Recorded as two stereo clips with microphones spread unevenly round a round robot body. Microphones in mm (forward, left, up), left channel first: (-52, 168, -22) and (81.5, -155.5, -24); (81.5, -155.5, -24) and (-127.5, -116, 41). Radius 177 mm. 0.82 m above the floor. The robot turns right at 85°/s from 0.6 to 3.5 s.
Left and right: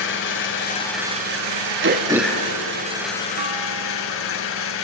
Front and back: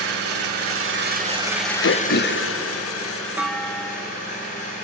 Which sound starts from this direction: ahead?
Throat clearing, at 1.8 s.